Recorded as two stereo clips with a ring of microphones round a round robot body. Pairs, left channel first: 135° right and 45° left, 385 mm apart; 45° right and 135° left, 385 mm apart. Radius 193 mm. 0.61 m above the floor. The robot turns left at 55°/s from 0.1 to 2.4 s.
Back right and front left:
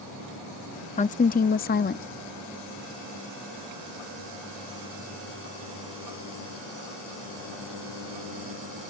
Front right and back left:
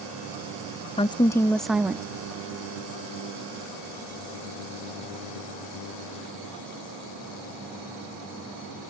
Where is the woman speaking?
95° right; by 2.0 s 155° right.